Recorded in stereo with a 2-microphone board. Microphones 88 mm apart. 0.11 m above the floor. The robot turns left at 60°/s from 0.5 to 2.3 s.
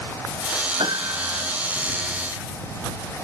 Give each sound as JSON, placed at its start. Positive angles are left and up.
{"t": 0.8, "sound": "a piano", "azimuth_deg": -110}